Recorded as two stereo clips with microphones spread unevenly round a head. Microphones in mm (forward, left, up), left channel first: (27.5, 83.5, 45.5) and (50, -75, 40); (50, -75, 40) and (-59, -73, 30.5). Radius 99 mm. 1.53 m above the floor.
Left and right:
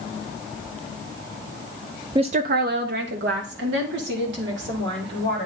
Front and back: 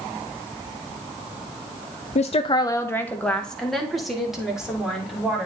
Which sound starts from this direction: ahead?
A woman speaking, at 2.1 s.